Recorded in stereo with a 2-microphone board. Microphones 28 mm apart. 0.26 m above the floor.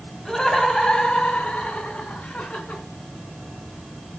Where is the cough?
No cough in this recording.